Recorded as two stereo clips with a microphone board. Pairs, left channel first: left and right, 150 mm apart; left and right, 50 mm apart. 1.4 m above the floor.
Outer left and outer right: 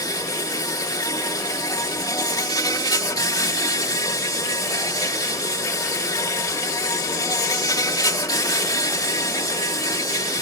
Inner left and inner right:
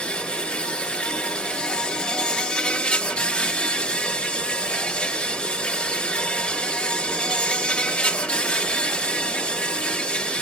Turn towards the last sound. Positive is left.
turn(degrees=25)  # may be behind; listen again after turning